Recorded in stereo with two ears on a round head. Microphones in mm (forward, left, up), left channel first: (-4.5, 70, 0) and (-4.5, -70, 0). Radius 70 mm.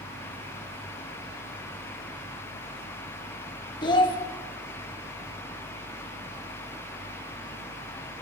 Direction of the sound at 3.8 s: 30° left (ahead or behind).